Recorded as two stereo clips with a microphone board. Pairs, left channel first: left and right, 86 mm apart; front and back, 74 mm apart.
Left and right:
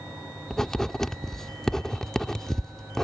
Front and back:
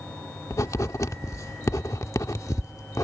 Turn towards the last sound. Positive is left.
turn(degrees=10)